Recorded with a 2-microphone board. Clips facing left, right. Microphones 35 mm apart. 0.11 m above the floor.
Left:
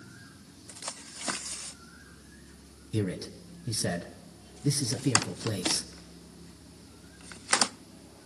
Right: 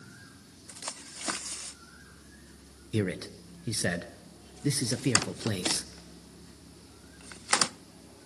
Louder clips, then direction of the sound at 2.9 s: Right 1 dB; 35° right (ahead or behind).